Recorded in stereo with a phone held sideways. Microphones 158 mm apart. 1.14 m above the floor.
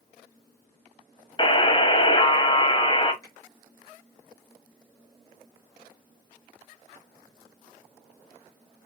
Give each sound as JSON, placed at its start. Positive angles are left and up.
{"t": 1.4, "sound": "a buzzer", "side_deg": 30, "distance_m": 0.8}
{"t": 3.2, "sound": "a finger snap", "side_deg": 20, "distance_m": 2.5}